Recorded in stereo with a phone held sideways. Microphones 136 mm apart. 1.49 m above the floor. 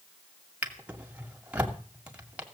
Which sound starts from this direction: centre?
A drawer, at 0.6 s.